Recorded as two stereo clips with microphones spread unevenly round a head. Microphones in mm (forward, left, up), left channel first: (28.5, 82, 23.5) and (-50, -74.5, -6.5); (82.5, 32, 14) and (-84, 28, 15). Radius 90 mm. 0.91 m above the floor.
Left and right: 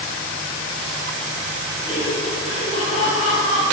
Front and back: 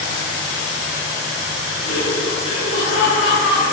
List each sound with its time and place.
1.8 s laughter: straight ahead, 9 m; by 3.6 s 10° left, 10 m